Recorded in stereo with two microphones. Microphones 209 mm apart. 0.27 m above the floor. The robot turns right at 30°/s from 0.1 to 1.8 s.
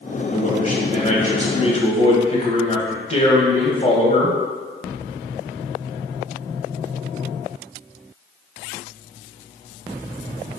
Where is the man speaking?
80° left, 1.4 m; by 4.4 s 120° left, 1.4 m.